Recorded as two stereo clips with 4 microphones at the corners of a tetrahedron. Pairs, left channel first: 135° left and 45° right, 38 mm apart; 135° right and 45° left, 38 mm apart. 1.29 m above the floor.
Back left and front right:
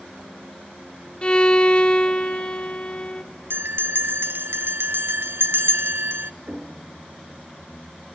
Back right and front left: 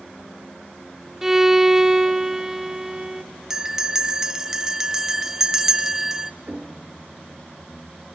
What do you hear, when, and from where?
1.2 s a violin: 115° left, 1.0 m
3.5 s a bell: 35° right, 0.6 m
6.5 s knocking: 5° right, 2.5 m